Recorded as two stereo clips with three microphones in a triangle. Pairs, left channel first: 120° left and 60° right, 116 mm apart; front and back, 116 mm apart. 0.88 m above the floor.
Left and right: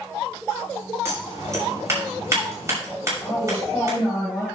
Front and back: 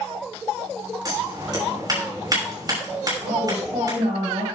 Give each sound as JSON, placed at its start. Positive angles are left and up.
{"t": 1.1, "sound": "scissors", "azimuth_deg": -125, "distance_m": 6.0}
{"t": 3.2, "sound": "a woman speaking", "azimuth_deg": 180, "distance_m": 6.0}